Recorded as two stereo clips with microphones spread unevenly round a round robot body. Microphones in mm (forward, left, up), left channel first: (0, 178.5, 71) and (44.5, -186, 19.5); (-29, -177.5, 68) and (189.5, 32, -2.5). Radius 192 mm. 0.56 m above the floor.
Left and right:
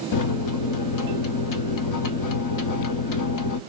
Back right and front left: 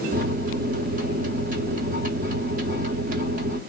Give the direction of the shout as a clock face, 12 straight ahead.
No shout in this recording.